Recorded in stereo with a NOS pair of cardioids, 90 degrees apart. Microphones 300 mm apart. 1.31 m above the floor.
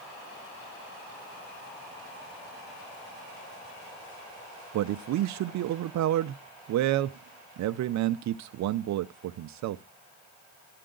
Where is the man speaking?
70° right, 0.6 m.